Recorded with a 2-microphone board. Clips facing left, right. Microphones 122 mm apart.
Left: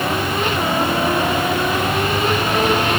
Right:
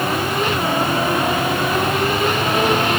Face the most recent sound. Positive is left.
No sound to turn to.